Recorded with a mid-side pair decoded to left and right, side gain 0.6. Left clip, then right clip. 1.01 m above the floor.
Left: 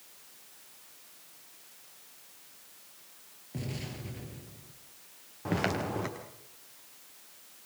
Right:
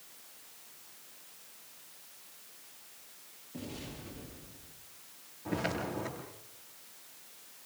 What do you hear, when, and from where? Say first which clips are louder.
3.5 s an explosion: left 3 dB; 45° left, 8 m
5.5 s footsteps: left 3 dB; 60° left, 9 m